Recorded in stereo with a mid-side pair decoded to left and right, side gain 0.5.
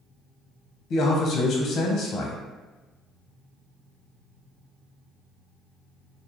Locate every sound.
0.9 s a man speaking: 55° left, 0.6 m